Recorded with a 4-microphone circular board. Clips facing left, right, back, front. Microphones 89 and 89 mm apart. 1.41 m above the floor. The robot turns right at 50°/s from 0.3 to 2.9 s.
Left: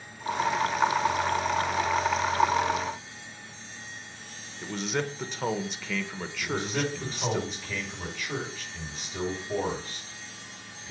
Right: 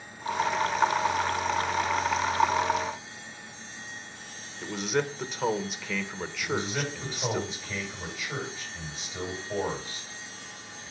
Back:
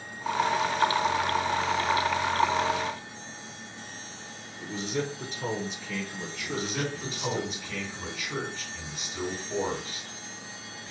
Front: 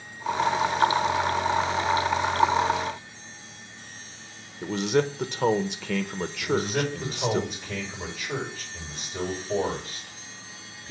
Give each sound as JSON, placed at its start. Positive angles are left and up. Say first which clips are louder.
{"t": 4.6, "sound": "a man speaking", "louder": "right 2 dB, front 8 dB", "azimuth_deg": -5, "distance_m": 0.9}
{"t": 6.4, "sound": "a man speaking", "louder": "left 1 dB, front 6 dB", "azimuth_deg": 50, "distance_m": 5.5}